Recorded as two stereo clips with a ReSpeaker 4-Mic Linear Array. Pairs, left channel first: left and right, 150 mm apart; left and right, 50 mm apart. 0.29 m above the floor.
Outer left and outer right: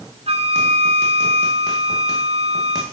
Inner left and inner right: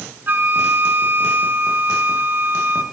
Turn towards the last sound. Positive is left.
turn(degrees=-45)  # may be behind; listen again after turning